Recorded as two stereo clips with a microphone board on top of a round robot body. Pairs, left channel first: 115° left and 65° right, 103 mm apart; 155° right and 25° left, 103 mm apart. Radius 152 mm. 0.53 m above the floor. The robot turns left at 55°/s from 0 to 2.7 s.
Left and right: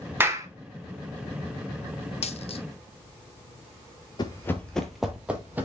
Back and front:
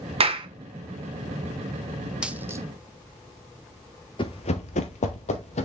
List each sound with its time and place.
0.2 s a clap: straight ahead, 1.8 m; by 0.5 s 15° right, 1.8 m
2.2 s a dropped coin: 105° left, 0.9 m; by 2.7 s 85° left, 0.9 m
4.2 s running footsteps: 160° left, 0.7 m; by 5.7 s 140° right, 1.4 m